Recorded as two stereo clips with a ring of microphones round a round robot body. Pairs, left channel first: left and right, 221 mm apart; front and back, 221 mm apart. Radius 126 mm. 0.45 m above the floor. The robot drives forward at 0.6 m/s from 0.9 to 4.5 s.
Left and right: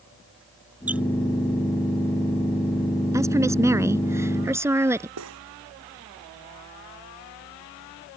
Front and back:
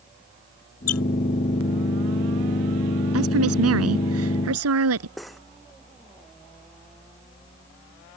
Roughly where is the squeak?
Ahead.